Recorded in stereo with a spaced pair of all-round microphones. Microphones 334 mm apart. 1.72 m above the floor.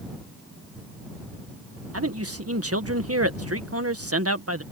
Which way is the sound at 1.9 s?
45° right (ahead or behind).